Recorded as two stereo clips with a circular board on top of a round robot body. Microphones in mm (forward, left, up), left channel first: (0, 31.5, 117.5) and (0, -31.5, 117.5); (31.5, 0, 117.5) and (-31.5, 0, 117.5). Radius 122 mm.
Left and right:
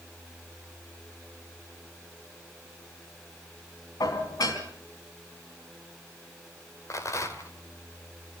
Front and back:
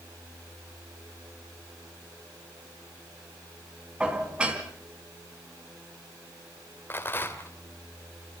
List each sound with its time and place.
4.0 s dishes clattering: 105° left, 3.5 m
6.9 s a rattle: 55° left, 3 m